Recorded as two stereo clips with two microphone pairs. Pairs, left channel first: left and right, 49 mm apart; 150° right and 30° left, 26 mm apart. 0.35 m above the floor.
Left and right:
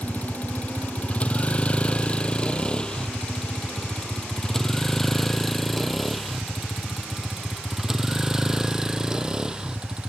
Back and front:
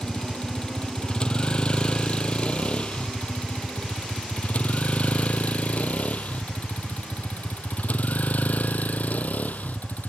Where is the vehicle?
150° left; by 10.1 s 165° right.